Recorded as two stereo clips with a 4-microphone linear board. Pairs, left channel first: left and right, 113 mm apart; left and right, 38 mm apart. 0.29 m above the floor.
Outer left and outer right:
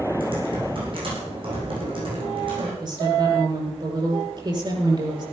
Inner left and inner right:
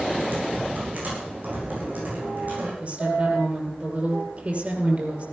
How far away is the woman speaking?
About 6 m.